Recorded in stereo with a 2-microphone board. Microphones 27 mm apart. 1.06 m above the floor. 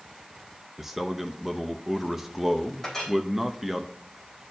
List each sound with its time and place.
0.8 s a man speaking: 15° right (ahead or behind), 0.7 m
2.8 s a clink: 10° left (ahead or behind), 3.5 m